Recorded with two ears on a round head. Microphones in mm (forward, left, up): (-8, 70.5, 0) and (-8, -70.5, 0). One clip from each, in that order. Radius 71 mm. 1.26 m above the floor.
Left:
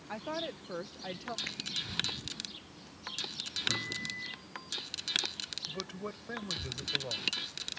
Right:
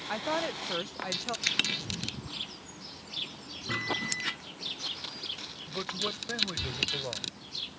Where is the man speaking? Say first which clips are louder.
Right 7 dB; 20° right (ahead or behind).